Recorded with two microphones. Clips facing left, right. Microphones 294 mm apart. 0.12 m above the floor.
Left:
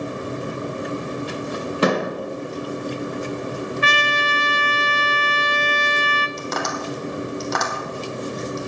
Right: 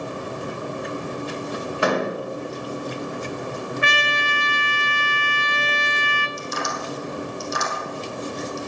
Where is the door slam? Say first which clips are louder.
Left 2 dB; 45° left (ahead or behind), 3.5 m.